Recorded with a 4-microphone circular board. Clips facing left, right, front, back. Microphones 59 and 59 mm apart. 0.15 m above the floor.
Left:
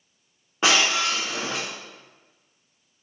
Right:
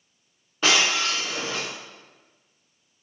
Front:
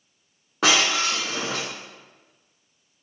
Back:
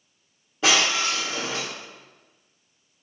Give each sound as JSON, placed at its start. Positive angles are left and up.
{"t": 0.6, "sound": "breaking glass", "azimuth_deg": 30, "distance_m": 3.0}